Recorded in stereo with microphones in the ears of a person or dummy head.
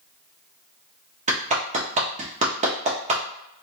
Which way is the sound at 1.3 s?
35° right (ahead or behind).